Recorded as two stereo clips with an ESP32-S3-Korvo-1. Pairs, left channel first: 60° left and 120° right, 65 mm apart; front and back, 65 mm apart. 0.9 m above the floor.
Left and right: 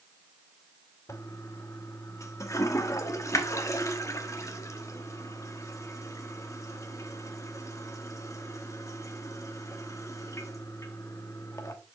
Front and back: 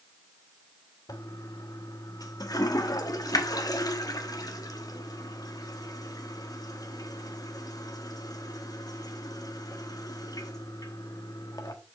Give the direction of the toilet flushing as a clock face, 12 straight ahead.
11 o'clock.